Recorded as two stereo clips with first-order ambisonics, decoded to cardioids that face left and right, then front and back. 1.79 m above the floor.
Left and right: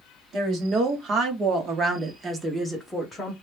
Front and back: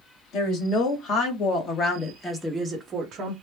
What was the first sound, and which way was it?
A woman speaking, 35° right.